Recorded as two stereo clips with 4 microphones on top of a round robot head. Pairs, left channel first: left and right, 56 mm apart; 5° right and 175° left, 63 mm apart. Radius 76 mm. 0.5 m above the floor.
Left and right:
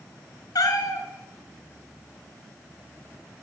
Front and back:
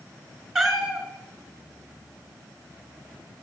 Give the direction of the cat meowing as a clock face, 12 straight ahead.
9 o'clock.